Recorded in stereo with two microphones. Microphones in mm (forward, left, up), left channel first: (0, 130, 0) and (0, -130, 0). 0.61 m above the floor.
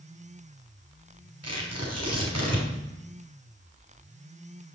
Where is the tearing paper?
80° right, 4 m.